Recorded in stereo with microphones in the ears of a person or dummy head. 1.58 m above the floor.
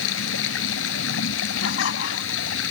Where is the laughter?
65° left (ahead or behind).